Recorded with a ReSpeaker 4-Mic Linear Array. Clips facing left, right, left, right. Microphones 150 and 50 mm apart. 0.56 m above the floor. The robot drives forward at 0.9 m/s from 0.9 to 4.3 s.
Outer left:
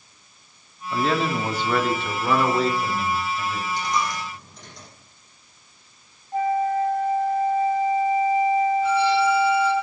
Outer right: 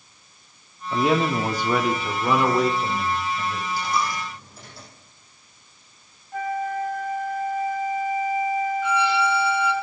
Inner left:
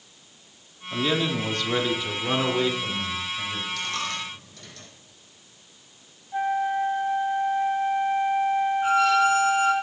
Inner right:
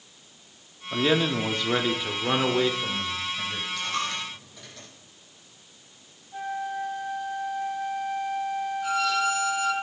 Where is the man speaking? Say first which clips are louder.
Outer right 2 dB, inner right 2 dB; 20° right (ahead or behind), 1.1 m; by 3.7 s 5° right (ahead or behind), 3 m.